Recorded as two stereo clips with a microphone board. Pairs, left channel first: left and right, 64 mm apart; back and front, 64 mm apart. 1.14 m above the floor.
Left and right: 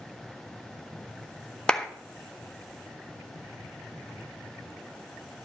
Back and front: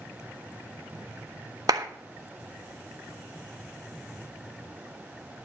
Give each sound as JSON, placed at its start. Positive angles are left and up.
{"t": 1.7, "sound": "a clap", "azimuth_deg": 10, "distance_m": 0.9}